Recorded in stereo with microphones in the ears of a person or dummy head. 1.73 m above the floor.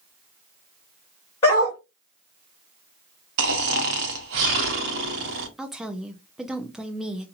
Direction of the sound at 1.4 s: 15° left (ahead or behind).